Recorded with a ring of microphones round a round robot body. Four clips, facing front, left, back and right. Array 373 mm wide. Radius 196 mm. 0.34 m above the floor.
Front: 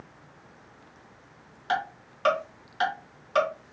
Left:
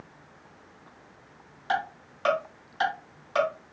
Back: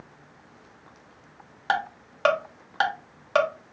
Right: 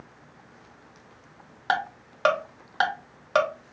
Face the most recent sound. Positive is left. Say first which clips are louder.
# right 2 dB, back 2 dB
turn(degrees=-130)